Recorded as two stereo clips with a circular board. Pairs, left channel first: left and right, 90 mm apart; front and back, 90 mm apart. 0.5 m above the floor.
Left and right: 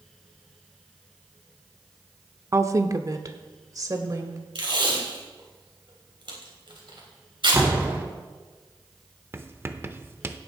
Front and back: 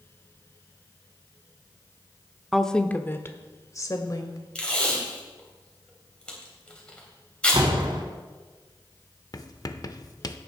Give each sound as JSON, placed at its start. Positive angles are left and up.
{"t": 2.5, "sound": "a woman speaking", "azimuth_deg": -90, "distance_m": 0.8}
{"t": 4.5, "sound": "tape being pulled", "azimuth_deg": -80, "distance_m": 3.5}
{"t": 7.5, "sound": "a door slam", "azimuth_deg": -155, "distance_m": 2.5}
{"t": 9.3, "sound": "writing", "azimuth_deg": -35, "distance_m": 0.7}